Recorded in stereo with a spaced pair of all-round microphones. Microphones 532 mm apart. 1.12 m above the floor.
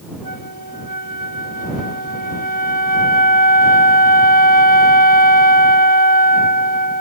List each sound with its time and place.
0.2 s a flute: 40° right (ahead or behind)